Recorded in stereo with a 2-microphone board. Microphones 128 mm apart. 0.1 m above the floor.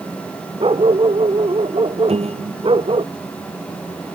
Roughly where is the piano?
Right.